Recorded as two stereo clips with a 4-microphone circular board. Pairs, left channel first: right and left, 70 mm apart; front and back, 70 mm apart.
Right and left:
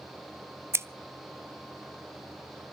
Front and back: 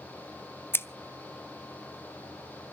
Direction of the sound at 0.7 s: 50° left.